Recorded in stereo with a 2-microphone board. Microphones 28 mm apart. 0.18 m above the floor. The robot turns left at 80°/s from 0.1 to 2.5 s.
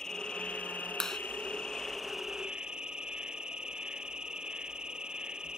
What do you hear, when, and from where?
0.0 s an insect: 155° left; by 5.6 s 35° right
1.0 s a clap: 15° left (ahead or behind); by 1.2 s 5° left (ahead or behind)